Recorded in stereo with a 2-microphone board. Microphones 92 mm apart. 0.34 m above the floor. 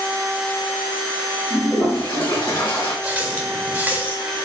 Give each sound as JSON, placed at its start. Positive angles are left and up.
{"t": 1.5, "sound": "a toilet flushing", "side_deg": 70, "distance_m": 1.8}
{"t": 3.0, "sound": "a running tap", "side_deg": -20, "distance_m": 0.6}